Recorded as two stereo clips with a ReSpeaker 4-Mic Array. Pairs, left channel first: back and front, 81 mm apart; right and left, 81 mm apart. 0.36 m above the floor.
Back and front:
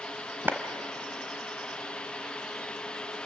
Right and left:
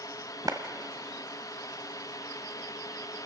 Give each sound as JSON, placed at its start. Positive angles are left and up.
{"t": 0.5, "sound": "a clap", "azimuth_deg": 60, "distance_m": 1.3}